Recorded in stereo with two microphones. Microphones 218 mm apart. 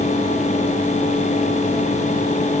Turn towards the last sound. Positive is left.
No sound to turn to.